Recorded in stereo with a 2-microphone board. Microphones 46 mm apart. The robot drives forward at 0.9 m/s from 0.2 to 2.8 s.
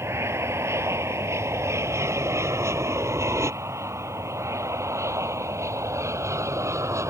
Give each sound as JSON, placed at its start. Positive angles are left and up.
{"t": 0.0, "sound": "an aircraft", "side_deg": -65}